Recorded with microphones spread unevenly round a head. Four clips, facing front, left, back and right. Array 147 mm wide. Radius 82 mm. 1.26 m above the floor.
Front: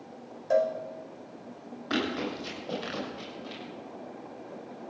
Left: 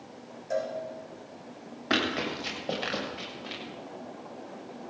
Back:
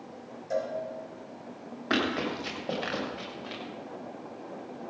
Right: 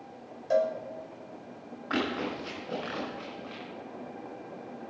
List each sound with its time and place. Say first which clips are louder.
0.5 s a cowbell: right 5 dB, front 6 dB; 20° right, 1.9 m
1.9 s running footsteps: left 1 dB, back 2 dB; 105° left, 8 m; by 3.6 s 100° left, 7 m